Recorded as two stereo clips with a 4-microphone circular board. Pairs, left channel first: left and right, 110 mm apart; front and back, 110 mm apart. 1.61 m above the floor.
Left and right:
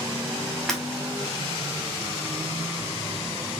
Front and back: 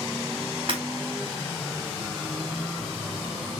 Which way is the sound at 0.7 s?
175° left.